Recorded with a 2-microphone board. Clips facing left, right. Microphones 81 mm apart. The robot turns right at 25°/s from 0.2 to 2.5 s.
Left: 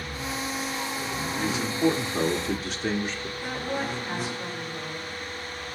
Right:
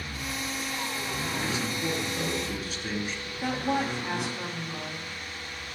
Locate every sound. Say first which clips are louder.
1.4 s a man speaking: left 9 dB; 75° left (ahead or behind), 2 m
3.4 s a woman speaking: right 4 dB; 75° right (ahead or behind), 6.5 m